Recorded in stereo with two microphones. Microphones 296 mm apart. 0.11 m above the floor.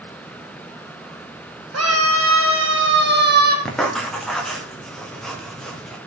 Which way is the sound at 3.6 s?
Centre (ahead or behind).